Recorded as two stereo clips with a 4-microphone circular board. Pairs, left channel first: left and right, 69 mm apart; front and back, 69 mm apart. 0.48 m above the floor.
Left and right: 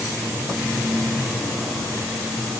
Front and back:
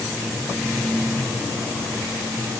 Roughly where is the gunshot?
I don't hear a gunshot.